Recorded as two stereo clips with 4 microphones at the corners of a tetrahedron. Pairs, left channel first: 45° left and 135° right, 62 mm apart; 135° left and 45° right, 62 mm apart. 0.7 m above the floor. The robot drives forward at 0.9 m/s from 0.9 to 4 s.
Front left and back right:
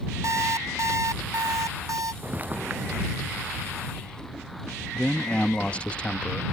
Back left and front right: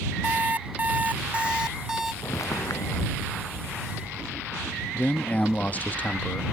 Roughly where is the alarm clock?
Right.